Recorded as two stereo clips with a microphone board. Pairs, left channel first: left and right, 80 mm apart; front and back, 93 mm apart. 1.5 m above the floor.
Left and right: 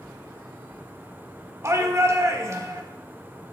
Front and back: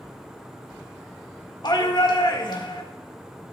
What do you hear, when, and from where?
1.6 s a shout: 40° right, 1.5 m